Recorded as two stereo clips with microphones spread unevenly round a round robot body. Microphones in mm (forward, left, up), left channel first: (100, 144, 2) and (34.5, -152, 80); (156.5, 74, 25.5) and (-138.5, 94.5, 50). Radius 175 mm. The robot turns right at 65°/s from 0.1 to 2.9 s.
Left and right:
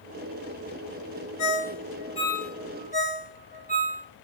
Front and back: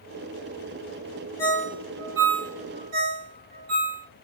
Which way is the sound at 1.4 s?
75° left.